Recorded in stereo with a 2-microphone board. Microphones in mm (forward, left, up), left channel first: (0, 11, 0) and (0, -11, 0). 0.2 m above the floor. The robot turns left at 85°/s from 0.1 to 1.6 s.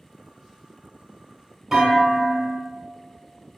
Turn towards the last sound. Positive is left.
turn(degrees=-30)  # may be behind; listen again after turning